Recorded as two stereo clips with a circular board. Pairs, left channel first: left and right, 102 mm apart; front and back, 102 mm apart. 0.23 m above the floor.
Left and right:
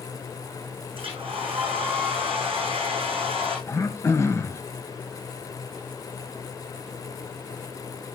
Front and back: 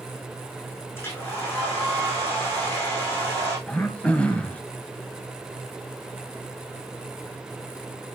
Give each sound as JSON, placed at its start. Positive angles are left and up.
{"t": 0.9, "sound": "a hair dryer", "azimuth_deg": -65, "distance_m": 7.0}
{"t": 3.7, "sound": "throat clearing", "azimuth_deg": 65, "distance_m": 0.9}